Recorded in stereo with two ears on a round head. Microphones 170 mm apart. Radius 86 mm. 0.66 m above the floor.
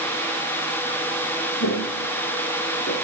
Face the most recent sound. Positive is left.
turn(degrees=75)  # may be behind; listen again after turning